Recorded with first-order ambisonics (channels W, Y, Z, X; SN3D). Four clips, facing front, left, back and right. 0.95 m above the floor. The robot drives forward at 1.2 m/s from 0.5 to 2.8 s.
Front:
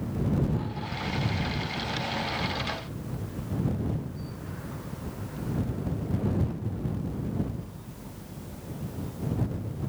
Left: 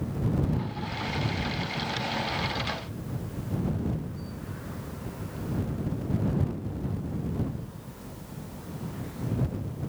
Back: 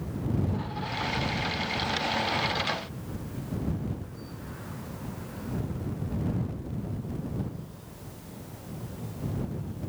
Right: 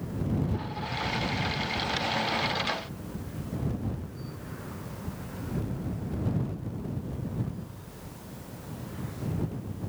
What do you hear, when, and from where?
Only background noise.